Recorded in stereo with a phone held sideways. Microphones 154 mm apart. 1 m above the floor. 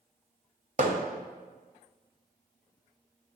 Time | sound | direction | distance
0.8 | hammering | 60° right (ahead or behind) | 1.2 m